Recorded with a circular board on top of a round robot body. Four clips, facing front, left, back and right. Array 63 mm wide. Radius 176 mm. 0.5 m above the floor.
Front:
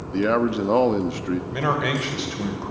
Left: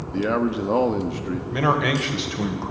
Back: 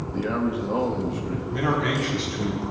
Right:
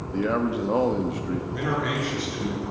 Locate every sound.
0.1 s a man speaking: 15° left, 1.3 m
1.5 s a man speaking: 60° left, 2.5 m